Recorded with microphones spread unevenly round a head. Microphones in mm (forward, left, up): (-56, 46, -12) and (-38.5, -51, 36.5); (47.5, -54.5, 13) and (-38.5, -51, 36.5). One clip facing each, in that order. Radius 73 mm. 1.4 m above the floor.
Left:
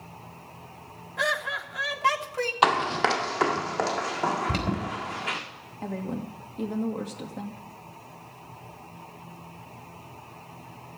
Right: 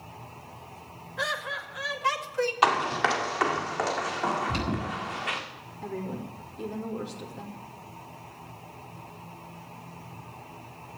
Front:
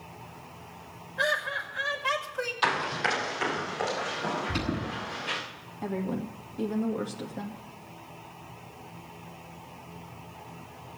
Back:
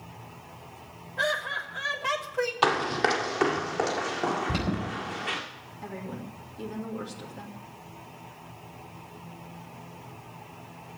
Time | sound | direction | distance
1.2 | laughter | 125° left | 3 m
2.6 | running footsteps | 175° left | 2.5 m
4.5 | an alarm | 130° left | 5 m
5.8 | a woman speaking | 55° left | 2.5 m